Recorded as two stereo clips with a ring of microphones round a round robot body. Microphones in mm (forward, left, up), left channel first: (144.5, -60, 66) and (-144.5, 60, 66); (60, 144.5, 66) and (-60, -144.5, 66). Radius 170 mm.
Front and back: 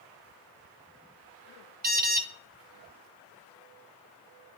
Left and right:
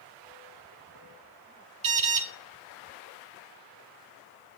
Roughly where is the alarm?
Behind right.